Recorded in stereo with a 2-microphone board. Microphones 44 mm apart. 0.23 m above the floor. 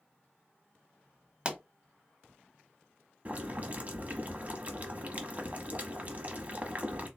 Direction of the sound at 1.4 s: 25° right (ahead or behind).